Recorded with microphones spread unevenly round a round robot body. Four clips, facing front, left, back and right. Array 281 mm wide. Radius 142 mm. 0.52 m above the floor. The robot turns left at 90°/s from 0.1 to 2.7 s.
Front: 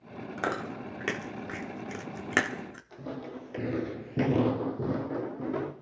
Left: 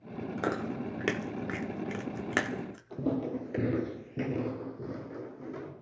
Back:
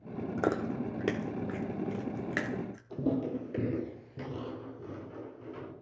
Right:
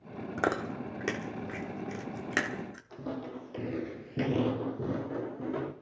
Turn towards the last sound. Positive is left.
turn(degrees=-25)